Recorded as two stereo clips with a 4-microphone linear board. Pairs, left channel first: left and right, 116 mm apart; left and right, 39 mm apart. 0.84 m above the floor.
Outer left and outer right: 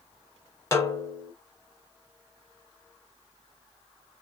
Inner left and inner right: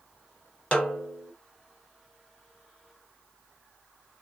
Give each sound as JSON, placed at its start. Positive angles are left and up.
{"t": 0.7, "sound": "a snare drum", "side_deg": 25, "distance_m": 1.7}